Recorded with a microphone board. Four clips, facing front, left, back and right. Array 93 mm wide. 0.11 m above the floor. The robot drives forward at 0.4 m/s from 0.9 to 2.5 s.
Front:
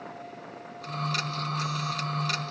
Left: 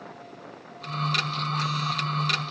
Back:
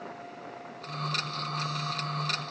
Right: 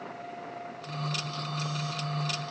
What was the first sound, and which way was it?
Only background noise.